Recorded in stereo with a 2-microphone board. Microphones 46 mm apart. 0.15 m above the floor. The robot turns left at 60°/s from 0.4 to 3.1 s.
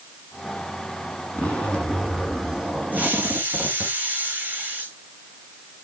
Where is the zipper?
45° left, 1.9 m; by 3.9 s 60° right, 1.9 m.